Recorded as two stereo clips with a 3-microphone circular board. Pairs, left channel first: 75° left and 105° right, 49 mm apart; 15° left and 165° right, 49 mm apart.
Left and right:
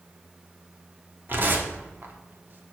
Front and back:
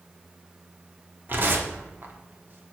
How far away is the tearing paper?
About 1.2 m.